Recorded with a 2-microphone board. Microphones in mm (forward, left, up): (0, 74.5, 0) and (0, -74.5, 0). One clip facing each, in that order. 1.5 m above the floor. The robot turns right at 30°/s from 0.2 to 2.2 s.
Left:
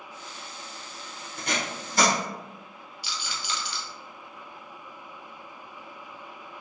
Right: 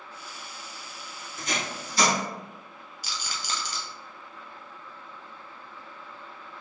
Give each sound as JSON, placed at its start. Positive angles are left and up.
{"t": 1.4, "sound": "tape being pulled", "side_deg": 65, "distance_m": 1.2}
{"t": 3.0, "sound": "a rattle", "side_deg": -45, "distance_m": 0.6}